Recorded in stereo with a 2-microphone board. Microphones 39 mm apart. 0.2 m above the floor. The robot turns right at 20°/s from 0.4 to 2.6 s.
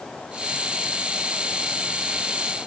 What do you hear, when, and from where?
Only background noise.